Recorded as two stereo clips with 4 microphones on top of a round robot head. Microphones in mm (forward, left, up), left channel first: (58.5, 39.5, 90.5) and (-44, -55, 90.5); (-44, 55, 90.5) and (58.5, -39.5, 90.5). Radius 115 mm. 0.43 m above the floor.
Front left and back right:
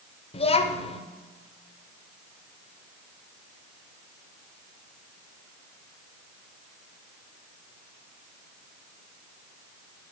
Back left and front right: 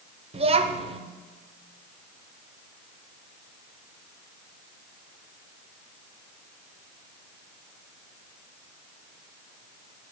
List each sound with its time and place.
0.3 s a child speaking: straight ahead, 1.0 m